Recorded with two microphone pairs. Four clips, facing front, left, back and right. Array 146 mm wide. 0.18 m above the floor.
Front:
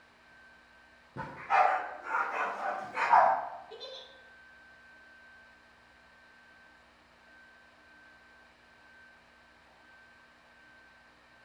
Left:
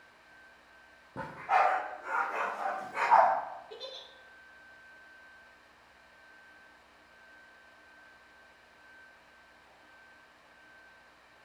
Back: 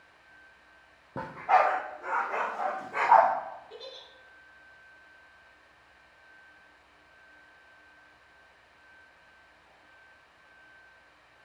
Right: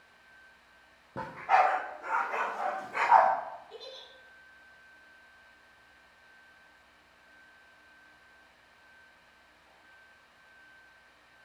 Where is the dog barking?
155° right, 2 m.